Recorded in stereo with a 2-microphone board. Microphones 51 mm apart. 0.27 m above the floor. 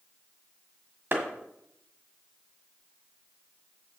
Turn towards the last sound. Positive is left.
turn(degrees=-40)  # may be behind; listen again after turning